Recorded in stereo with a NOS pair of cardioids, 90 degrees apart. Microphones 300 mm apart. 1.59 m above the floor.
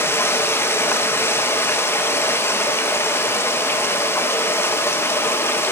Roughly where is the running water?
Ahead.